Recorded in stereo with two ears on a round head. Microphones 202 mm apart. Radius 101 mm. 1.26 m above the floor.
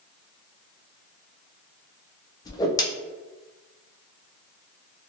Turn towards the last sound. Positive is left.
turn(degrees=15)  # may be behind; listen again after turning